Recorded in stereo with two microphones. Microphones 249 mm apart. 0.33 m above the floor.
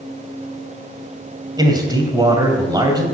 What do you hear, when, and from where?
1.6 s a man speaking: 15° right (ahead or behind), 2 m